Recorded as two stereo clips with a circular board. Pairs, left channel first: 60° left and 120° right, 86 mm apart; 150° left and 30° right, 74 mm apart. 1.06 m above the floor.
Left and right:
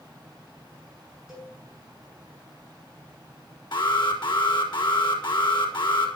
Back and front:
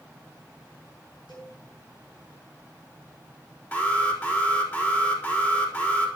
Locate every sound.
1.3 s a cowbell: 160° left, 7.5 m
3.7 s an alarm: 85° left, 4.5 m